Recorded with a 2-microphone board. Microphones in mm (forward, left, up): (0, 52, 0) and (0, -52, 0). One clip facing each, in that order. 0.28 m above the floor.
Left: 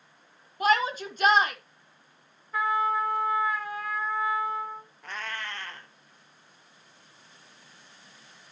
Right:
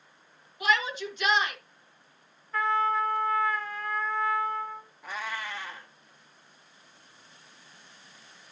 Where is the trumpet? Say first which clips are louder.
Even; 10° left (ahead or behind), 2.0 m.